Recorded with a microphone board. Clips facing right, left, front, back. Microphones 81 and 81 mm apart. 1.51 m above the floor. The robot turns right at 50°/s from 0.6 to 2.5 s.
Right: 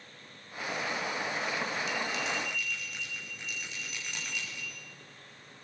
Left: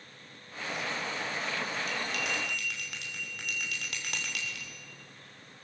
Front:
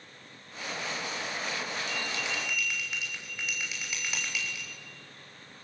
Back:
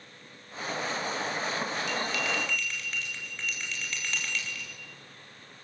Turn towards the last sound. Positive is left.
turn(degrees=80)